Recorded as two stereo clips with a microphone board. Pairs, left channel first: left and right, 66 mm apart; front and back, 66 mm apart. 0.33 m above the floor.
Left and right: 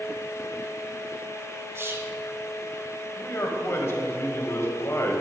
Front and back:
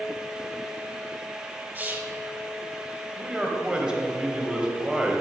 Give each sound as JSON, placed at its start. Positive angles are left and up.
{"t": 1.8, "sound": "whispering", "azimuth_deg": -130, "distance_m": 1.8}
{"t": 3.2, "sound": "a man speaking", "azimuth_deg": 110, "distance_m": 1.9}